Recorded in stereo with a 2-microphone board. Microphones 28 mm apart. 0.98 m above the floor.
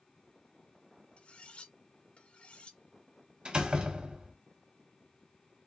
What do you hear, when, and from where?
1.2 s cutlery clinking: 50° left (ahead or behind), 1.4 m
3.5 s a door slam: 40° right (ahead or behind), 1.3 m